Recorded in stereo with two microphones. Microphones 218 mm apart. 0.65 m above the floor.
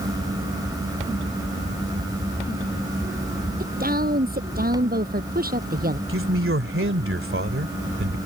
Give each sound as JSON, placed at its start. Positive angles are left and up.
{"t": 3.6, "sound": "a woman speaking", "side_deg": -40}
{"t": 6.1, "sound": "a man speaking", "side_deg": -65}